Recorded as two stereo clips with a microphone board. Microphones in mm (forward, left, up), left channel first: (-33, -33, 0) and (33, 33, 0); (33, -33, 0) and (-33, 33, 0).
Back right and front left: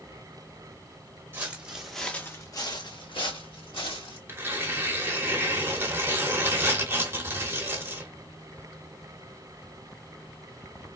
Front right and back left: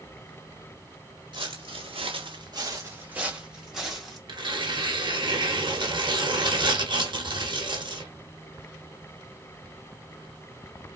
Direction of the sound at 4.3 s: 110° left.